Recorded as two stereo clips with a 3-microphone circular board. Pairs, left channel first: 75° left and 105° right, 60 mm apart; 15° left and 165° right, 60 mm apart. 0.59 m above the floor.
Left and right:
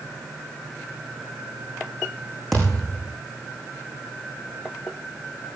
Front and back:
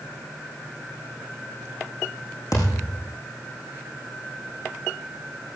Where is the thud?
10° right, 8 m.